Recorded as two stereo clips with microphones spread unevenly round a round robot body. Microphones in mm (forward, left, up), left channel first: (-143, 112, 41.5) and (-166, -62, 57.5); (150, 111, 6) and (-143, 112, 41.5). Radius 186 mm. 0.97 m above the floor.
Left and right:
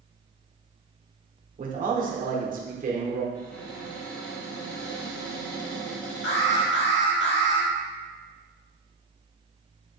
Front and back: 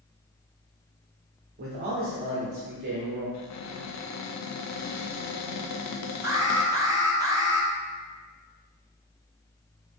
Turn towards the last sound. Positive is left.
turn(degrees=100)